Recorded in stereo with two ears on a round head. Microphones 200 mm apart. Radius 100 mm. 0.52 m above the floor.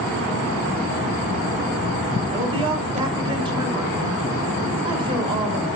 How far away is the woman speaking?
About 3.5 m.